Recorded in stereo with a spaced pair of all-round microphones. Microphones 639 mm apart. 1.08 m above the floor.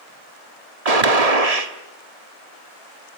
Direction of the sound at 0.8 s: 70° right (ahead or behind).